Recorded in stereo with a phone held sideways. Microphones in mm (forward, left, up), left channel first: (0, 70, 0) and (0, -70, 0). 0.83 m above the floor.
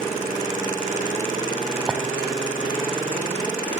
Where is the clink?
5° right (ahead or behind), 4 m.